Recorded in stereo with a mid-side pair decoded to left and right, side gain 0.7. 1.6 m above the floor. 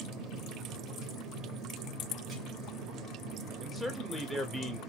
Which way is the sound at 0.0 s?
40° right.